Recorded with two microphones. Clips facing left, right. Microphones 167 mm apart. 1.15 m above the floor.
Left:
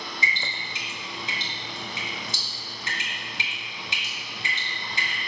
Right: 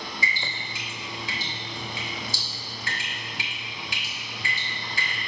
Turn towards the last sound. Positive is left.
turn(degrees=25)  # may be behind; listen again after turning